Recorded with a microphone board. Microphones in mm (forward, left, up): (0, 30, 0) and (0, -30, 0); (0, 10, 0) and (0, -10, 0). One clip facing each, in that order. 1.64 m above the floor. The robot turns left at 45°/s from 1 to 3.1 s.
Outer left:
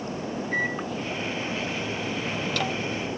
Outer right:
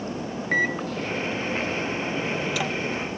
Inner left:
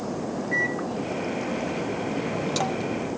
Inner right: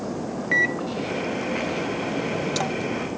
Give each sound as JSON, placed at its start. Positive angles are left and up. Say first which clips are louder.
{"t": 0.5, "sound": "a microwave", "louder": "outer right 5 dB, inner right 5 dB", "azimuth_deg": -100, "distance_m": 1.0}